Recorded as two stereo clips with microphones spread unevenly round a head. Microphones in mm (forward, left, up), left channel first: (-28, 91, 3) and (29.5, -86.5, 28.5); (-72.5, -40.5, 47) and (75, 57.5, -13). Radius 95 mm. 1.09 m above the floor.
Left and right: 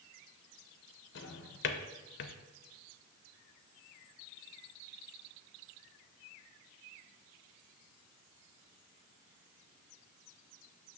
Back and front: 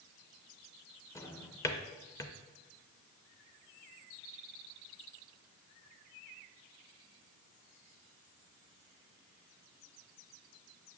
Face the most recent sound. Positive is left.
turn(degrees=145)